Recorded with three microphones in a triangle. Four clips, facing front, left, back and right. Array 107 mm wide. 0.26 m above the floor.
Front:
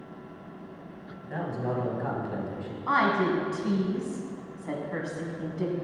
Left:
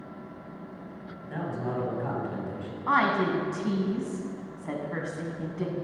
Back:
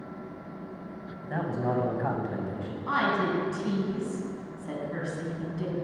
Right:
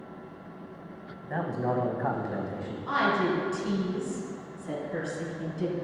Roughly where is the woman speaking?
Ahead left.